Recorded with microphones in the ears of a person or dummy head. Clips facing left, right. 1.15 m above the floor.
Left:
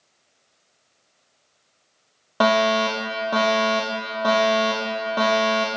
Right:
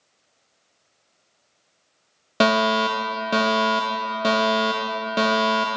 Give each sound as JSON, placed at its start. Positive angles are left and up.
{"t": 2.4, "sound": "a fire alarm", "side_deg": -30, "distance_m": 1.1}